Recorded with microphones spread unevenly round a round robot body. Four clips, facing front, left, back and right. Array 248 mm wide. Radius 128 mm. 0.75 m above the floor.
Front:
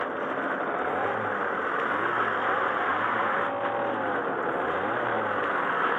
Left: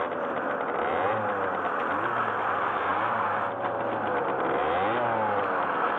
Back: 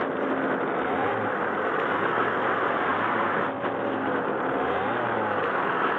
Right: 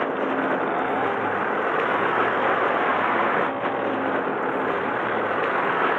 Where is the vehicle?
135° right; by 6.0 s 130° right.